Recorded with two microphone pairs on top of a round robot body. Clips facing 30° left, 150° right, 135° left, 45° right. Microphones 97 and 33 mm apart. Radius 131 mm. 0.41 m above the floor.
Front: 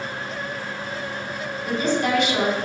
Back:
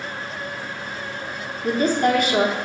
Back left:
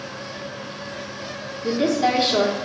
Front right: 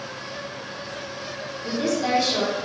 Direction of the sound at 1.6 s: Straight behind.